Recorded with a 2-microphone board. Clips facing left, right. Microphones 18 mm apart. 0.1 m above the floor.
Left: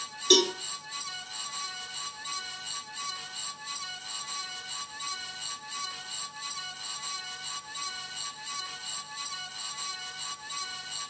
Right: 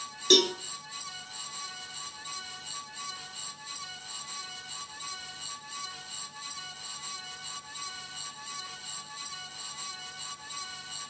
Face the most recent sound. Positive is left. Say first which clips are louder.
# even
turn(degrees=-10)  # may be behind; listen again after turning